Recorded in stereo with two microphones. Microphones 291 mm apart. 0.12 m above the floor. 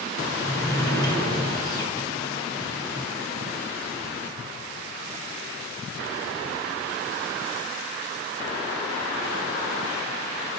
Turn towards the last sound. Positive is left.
turn(degrees=15)  # may be behind; listen again after turning